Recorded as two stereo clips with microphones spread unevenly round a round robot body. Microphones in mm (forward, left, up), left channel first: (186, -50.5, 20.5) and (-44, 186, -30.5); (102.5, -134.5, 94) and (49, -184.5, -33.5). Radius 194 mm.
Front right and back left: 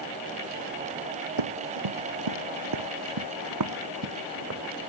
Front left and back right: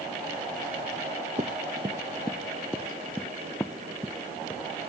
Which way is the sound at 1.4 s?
150° left.